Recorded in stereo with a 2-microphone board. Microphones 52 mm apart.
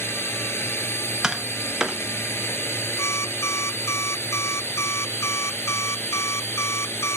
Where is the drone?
55° left (ahead or behind).